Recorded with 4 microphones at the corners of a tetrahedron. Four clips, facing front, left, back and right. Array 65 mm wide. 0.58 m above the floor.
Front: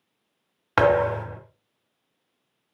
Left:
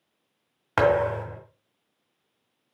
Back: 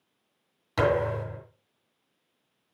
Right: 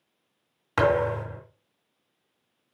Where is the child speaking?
No child speaking in this recording.